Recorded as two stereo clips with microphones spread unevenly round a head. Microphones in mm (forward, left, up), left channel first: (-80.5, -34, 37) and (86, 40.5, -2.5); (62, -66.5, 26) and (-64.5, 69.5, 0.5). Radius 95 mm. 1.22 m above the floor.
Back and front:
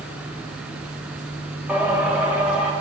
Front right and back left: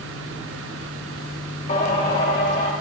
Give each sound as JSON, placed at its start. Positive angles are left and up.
{"t": 1.7, "sound": "singing", "azimuth_deg": -70, "distance_m": 1.3}